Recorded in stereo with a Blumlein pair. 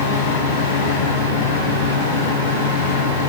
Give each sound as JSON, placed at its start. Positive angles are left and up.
{"t": 0.0, "sound": "a fan", "azimuth_deg": 70, "distance_m": 7.5}